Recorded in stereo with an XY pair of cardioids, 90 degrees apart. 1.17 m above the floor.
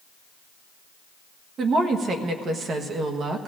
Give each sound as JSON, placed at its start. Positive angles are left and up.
{"t": 1.6, "sound": "a woman speaking", "azimuth_deg": -65, "distance_m": 1.2}